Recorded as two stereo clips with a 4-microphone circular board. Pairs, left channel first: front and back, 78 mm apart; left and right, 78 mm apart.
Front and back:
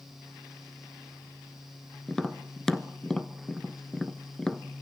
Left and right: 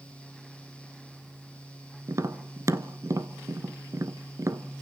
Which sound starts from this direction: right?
Tapping, at 2.1 s.